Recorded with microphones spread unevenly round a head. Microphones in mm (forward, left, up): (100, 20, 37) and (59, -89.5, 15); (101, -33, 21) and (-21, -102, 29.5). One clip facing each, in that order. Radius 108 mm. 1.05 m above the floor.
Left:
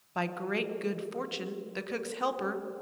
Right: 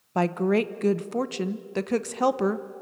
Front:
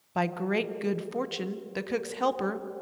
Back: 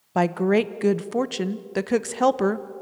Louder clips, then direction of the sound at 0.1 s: Right 10 dB, back 8 dB; 120° right.